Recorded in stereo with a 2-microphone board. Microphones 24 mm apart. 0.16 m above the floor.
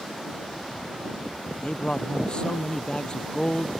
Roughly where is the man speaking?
Left.